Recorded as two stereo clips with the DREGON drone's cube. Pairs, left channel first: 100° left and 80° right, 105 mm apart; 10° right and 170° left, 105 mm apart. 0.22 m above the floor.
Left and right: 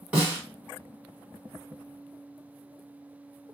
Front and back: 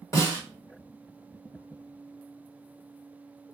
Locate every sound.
0.1 s a snare drum: 15° right, 1.6 m